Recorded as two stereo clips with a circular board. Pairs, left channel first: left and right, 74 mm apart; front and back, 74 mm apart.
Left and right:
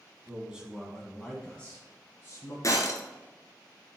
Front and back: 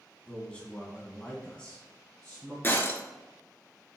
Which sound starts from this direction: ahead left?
Breaking glass, at 2.6 s.